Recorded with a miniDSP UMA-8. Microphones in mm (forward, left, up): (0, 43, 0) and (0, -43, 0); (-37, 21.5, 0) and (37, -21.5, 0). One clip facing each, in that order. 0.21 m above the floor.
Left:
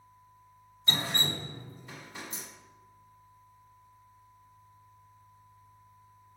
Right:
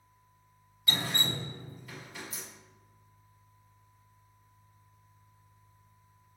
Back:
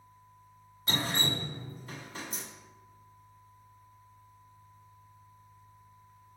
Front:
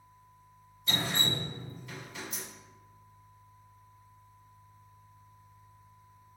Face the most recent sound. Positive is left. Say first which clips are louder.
# left 1 dB, back 1 dB
turn(degrees=135)